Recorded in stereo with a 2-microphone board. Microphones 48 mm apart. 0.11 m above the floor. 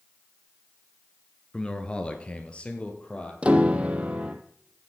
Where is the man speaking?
20° left (ahead or behind), 1.1 m; by 3.3 s 25° left (ahead or behind), 2.5 m.